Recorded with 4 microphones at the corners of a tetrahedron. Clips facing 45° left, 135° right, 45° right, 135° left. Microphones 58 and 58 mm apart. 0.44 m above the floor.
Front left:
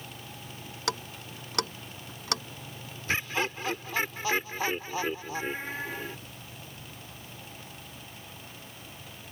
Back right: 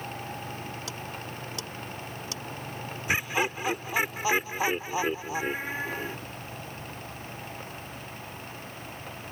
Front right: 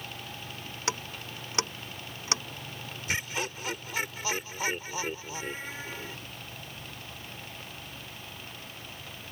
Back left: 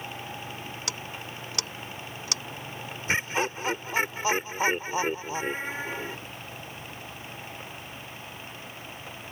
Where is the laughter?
155° left.